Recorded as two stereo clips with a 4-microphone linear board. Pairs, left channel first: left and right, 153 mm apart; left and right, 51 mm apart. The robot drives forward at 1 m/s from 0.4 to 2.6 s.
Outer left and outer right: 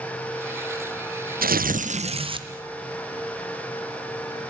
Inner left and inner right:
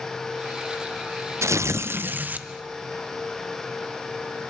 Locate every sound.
1.4 s tearing paper: 70° right (ahead or behind), 0.6 m; by 2.5 s 30° right (ahead or behind), 1.2 m